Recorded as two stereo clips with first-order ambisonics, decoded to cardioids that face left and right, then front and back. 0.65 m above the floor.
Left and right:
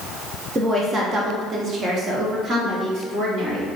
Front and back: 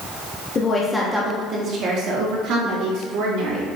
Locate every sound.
0.6 s a woman speaking: 40° right, 0.5 m; by 3.6 s 160° right, 1.5 m